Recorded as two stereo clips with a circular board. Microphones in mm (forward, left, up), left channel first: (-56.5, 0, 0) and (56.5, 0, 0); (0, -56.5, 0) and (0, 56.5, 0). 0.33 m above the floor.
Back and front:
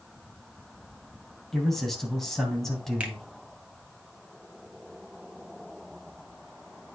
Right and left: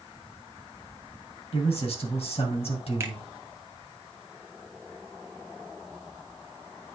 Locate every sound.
1.5 s a man speaking: 95° right, 2.5 m
3.0 s a finger snap: 60° left, 1.3 m